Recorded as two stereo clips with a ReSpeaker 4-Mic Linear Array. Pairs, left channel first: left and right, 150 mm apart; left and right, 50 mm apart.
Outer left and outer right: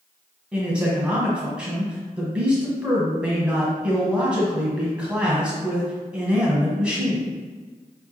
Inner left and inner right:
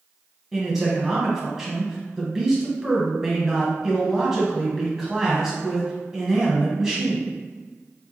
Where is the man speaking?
10° right (ahead or behind), 1.1 m.